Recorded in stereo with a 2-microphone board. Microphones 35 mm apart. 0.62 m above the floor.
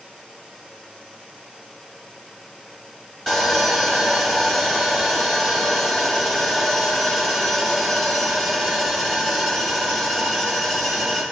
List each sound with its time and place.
3.3 s sawing: 10° left (ahead or behind), 3 m